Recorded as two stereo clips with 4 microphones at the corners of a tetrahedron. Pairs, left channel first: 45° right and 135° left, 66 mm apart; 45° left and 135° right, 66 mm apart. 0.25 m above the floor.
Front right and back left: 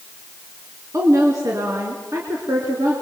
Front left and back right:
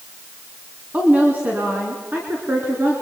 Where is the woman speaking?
160° left, 2.5 m; by 2.9 s 170° left, 3.5 m.